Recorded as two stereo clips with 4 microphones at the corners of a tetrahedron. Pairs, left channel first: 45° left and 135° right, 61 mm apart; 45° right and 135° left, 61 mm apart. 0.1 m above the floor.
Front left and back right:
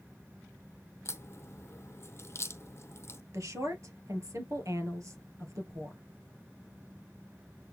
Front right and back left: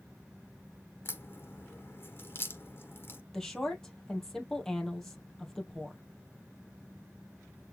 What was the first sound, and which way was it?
A crack, 5° left.